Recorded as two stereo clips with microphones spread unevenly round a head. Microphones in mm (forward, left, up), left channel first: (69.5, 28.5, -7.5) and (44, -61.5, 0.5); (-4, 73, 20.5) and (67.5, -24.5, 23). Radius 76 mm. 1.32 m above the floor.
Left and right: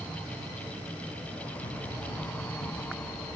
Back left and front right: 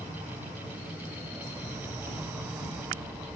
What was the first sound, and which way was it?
Running footsteps, 70° left.